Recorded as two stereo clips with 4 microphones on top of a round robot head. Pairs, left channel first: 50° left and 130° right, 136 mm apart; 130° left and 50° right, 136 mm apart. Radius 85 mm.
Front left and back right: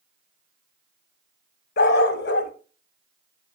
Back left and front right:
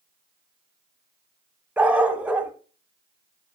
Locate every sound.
1.8 s a dog barking: 35° left, 0.7 m